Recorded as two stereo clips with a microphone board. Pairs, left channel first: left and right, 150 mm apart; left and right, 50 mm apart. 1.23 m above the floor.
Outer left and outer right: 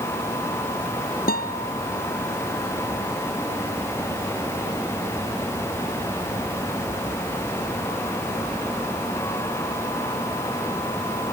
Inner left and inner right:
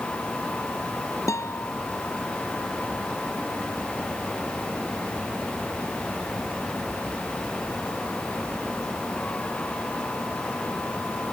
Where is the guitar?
80° left.